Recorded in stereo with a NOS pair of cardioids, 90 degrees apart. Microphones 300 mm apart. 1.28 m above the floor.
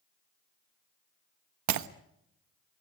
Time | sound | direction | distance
1.7 | breaking glass | 65° right | 1.2 m